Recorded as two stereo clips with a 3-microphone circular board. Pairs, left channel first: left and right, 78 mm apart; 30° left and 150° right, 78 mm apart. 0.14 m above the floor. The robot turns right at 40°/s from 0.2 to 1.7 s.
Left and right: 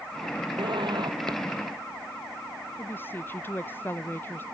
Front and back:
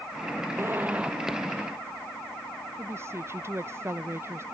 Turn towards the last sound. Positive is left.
turn(degrees=155)